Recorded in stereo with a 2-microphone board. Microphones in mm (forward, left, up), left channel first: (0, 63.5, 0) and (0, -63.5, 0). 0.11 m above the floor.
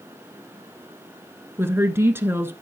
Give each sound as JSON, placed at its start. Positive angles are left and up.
{"t": 1.6, "sound": "a woman speaking", "side_deg": -20, "distance_m": 1.1}